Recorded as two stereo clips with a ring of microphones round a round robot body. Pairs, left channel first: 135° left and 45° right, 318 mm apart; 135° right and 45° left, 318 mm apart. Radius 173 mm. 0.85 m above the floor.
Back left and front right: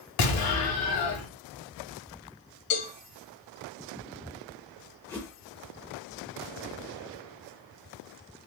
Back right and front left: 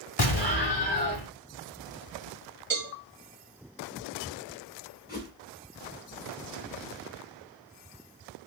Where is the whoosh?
145° right, 0.6 m.